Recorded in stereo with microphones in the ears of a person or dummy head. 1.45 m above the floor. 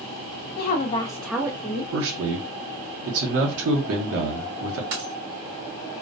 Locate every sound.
0.6 s a woman speaking: 55° left (ahead or behind), 0.7 m; by 1.8 s 30° right (ahead or behind), 0.8 m
1.9 s a man speaking: 70° right (ahead or behind), 0.9 m
4.9 s a dropped coin: 55° right (ahead or behind), 1.3 m